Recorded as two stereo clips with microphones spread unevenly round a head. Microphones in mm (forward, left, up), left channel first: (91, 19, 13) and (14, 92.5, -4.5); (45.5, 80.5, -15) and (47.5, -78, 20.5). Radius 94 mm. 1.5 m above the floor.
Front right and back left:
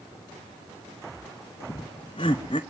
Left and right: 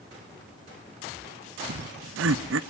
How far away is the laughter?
About 0.9 m.